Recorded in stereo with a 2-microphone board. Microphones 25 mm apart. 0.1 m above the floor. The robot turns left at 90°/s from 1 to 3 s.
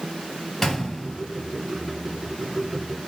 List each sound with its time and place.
0.6 s a gunshot: 20° left (ahead or behind), 2.5 m; by 1.2 s 35° left (ahead or behind), 2.5 m